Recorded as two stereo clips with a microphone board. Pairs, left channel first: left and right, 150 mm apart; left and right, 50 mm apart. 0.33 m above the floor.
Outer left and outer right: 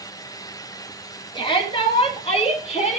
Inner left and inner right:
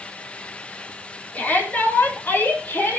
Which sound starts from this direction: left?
A shout, at 1.4 s.